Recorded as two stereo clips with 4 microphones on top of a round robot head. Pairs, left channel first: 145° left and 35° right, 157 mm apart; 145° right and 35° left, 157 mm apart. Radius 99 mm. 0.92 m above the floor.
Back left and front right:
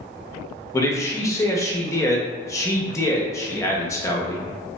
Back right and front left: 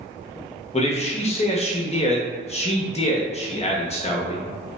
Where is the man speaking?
150° right, 0.7 m.